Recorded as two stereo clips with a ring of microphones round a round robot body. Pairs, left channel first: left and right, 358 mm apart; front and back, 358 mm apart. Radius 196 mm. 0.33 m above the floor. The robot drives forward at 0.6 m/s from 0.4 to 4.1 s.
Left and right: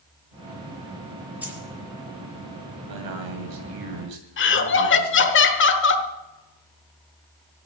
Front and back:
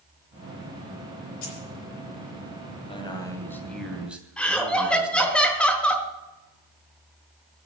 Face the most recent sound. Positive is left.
turn(degrees=85)